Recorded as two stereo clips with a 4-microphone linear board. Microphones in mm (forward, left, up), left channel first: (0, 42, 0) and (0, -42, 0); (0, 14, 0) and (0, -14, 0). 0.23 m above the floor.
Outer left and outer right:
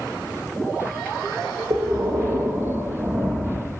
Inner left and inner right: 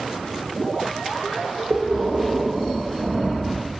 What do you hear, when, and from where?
1.7 s breathing: 55° right (ahead or behind), 1.9 m